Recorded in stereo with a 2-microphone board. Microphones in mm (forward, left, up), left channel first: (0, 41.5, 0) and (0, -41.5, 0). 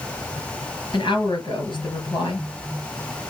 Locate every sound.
0.9 s a woman speaking: 75° left (ahead or behind), 4 m